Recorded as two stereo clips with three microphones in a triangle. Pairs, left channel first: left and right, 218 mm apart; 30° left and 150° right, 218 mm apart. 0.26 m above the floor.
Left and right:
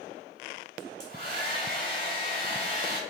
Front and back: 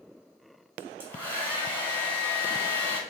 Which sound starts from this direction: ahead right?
A hair dryer, at 0.8 s.